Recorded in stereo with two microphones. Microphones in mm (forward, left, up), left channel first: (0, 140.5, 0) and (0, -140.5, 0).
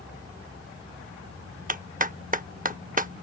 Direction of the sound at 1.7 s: 30° right (ahead or behind).